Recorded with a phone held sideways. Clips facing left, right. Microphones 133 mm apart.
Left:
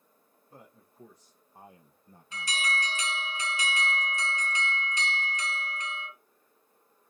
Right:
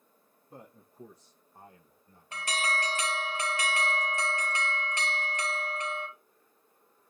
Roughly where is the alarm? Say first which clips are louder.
Right 2 dB; right.